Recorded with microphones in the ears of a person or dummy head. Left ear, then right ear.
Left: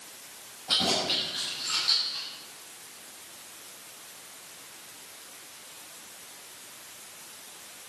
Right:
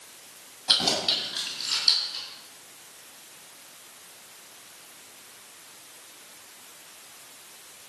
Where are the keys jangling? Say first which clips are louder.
Right 3 dB; 45° right (ahead or behind), 7 m; by 2.2 s 35° right (ahead or behind), 8.5 m.